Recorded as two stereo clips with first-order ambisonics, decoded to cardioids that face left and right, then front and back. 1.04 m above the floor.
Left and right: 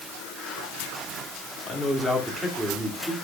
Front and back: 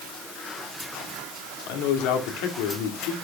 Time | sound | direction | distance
1.7 | a man speaking | 5° right | 2.5 m